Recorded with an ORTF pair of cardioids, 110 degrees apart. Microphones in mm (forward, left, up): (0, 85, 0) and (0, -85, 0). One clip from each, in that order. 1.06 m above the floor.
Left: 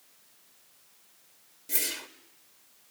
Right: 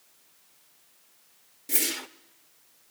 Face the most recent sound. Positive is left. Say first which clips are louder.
# right 3 dB
turn(degrees=-30)